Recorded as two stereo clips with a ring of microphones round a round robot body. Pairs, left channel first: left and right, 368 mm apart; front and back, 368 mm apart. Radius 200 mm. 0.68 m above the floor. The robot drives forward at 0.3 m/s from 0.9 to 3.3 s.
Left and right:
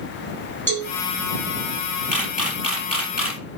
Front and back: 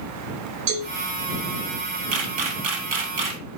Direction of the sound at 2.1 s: Straight behind.